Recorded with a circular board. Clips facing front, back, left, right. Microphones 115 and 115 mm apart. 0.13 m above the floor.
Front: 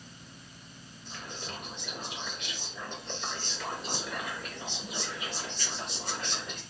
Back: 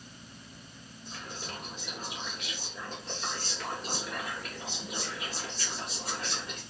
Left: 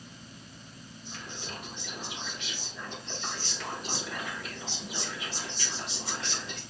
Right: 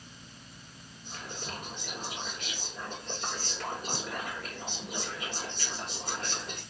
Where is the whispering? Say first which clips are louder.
Even, right 2 dB; 95° right, 2.5 m.